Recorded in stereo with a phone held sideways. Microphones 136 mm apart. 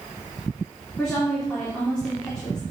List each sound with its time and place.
1.0 s a woman speaking: 5° left (ahead or behind), 3 m